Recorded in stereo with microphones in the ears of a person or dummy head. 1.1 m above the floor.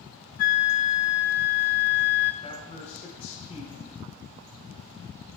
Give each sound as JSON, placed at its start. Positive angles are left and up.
{"t": 0.4, "sound": "a flute", "side_deg": 40, "distance_m": 0.7}
{"t": 2.4, "sound": "a man speaking", "side_deg": 45, "distance_m": 4.0}